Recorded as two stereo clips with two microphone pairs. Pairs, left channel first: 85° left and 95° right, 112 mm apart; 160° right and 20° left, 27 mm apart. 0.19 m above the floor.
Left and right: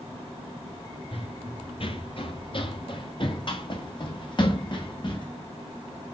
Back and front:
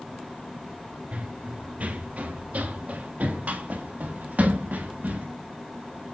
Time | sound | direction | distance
1.1 | running footsteps | 50° left | 2.5 m